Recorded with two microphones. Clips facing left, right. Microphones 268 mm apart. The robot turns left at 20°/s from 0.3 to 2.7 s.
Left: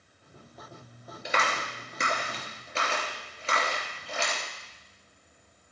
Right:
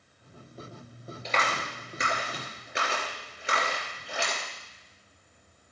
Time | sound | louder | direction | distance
1.2 | a clap | even | 15° left (ahead or behind) | 3.5 m